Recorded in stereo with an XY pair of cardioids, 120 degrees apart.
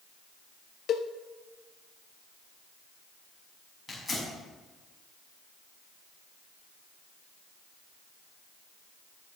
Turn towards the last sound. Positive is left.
turn(degrees=20)